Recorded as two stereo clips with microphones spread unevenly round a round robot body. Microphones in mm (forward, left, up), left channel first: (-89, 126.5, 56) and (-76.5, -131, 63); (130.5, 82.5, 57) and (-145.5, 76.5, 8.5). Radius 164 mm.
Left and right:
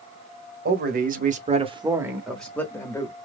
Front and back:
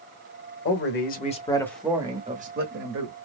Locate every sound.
0.7 s a man speaking: 45° right, 1.2 m; by 3.1 s 165° left, 1.4 m